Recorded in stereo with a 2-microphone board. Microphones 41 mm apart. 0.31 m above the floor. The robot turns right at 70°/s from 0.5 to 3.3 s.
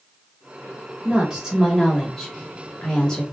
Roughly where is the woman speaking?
Centre.